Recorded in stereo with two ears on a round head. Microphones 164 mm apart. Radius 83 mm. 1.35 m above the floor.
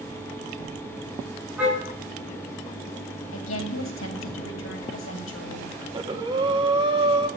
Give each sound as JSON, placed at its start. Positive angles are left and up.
{"t": 1.6, "sound": "a car horn", "side_deg": -5, "distance_m": 5.5}
{"t": 3.3, "sound": "a woman speaking", "side_deg": 85, "distance_m": 2.5}
{"t": 5.8, "sound": "breathing", "side_deg": -25, "distance_m": 1.2}